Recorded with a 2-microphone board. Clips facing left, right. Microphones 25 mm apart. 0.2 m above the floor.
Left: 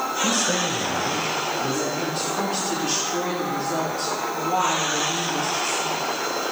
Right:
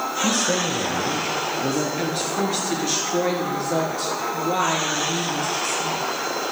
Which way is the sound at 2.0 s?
55° right (ahead or behind).